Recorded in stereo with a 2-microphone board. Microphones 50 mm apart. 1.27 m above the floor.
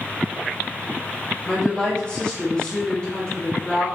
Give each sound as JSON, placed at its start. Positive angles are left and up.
{"t": 1.5, "sound": "a woman speaking", "side_deg": 20, "distance_m": 2.0}